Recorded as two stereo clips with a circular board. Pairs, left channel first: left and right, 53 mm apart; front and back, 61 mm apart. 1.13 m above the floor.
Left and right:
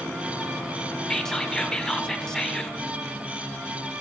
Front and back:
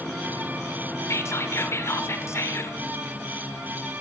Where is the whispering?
15° left, 0.7 m.